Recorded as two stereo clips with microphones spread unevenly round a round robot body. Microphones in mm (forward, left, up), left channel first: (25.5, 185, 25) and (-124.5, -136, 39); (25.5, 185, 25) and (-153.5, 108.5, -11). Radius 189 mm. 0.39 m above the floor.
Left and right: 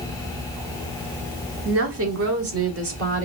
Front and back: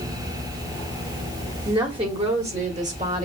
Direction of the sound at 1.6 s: 120° right.